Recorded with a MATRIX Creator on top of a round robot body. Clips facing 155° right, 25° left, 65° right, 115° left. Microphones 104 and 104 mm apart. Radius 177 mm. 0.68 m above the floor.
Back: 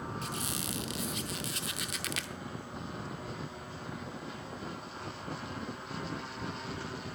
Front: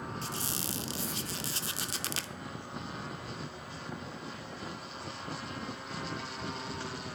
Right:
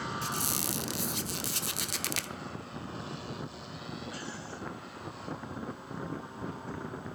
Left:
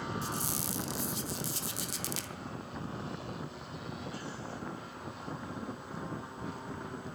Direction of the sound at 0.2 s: 35° right.